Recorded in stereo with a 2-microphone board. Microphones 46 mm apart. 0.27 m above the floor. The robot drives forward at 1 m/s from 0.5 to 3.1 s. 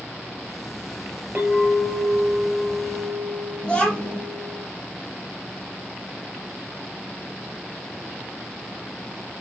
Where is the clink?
25° right (ahead or behind), 4 m; by 4.6 s 20° right (ahead or behind), 5.5 m.